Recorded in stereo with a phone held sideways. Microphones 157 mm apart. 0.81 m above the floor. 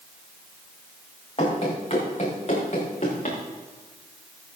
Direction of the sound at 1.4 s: 40° left (ahead or behind).